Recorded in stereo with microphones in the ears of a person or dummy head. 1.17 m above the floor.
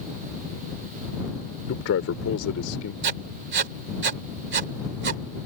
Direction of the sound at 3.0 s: 55° right (ahead or behind).